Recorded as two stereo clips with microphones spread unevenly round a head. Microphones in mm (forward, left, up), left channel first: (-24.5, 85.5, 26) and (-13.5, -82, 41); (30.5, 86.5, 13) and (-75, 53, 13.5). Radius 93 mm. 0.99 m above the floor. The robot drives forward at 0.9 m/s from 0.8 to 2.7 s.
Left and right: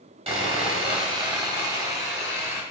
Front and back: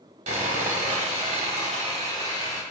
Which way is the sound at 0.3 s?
140° right.